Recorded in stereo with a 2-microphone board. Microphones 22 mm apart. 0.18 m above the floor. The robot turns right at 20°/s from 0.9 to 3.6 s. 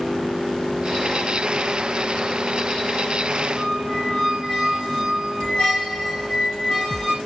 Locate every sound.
3.6 s a squeak: 40° left (ahead or behind), 6 m